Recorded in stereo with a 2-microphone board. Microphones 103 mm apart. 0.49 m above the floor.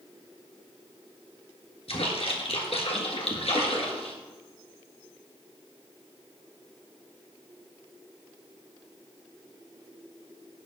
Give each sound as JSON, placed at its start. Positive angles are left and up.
{"t": 1.9, "sound": "a splash", "side_deg": 70, "distance_m": 1.7}